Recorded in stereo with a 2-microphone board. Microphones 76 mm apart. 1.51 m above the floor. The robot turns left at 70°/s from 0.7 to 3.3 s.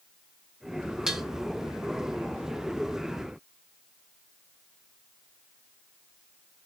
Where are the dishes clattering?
10° right (ahead or behind), 0.7 m; by 1.2 s 5° right (ahead or behind), 0.7 m.